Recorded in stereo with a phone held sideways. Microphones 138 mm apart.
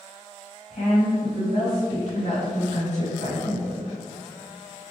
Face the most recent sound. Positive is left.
turn(degrees=60)  # may be behind; listen again after turning